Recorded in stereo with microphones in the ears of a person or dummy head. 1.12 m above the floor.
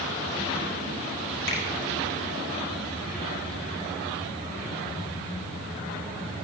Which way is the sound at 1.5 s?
70° left (ahead or behind).